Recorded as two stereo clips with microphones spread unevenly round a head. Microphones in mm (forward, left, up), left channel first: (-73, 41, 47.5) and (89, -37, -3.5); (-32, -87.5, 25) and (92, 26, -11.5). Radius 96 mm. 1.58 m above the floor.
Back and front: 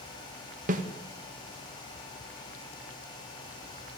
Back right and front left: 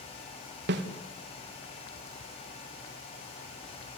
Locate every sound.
0.7 s a snare drum: 20° left, 2 m